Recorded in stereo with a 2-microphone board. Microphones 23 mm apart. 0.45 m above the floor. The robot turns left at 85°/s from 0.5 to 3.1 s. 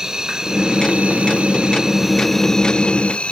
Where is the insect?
30° right, 2 m; by 3.3 s 105° left, 2 m.